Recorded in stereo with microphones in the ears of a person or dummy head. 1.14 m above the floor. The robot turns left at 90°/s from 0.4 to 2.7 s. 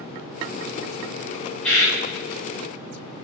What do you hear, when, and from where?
1.6 s a bird: 5° left (ahead or behind), 2.5 m; by 2.0 s 35° left (ahead or behind), 2.5 m